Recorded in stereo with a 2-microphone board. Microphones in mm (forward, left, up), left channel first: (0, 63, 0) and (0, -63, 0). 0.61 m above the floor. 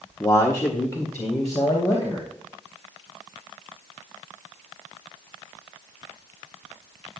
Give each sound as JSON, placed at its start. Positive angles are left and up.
{"t": 0.2, "sound": "a man speaking", "side_deg": 25, "distance_m": 0.7}